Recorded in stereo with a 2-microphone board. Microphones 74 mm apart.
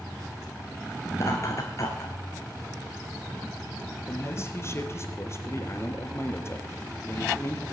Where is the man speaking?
40° left (ahead or behind), 2.0 m.